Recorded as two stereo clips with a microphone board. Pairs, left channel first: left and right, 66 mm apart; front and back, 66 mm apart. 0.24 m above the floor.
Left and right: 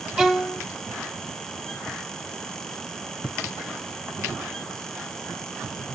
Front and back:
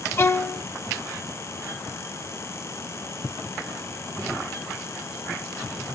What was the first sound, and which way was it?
A violin, 5° right.